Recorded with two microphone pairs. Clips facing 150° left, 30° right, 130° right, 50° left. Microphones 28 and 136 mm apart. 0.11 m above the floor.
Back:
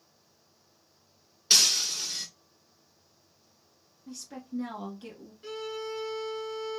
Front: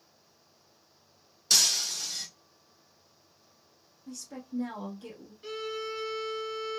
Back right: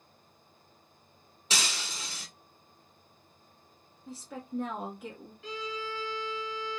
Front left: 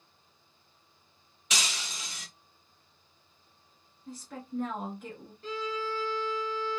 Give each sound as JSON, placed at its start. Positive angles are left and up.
{"t": 1.5, "sound": "breaking glass", "azimuth_deg": 180, "distance_m": 1.3}
{"t": 4.1, "sound": "a woman speaking", "azimuth_deg": 155, "distance_m": 1.1}
{"t": 5.4, "sound": "a violin", "azimuth_deg": 50, "distance_m": 1.6}